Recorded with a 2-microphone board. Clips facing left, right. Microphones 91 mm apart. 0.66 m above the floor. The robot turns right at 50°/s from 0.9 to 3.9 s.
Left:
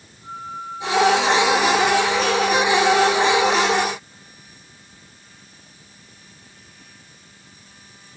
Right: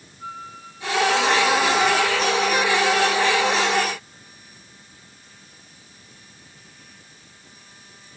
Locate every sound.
0.2 s a flute: 80° right, 4.5 m; by 3.8 s 65° left, 4.5 m